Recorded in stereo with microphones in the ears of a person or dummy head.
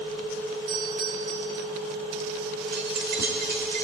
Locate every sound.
0.7 s a doorbell: 50° right (ahead or behind), 5 m
2.7 s keys jangling: 55° right (ahead or behind), 3 m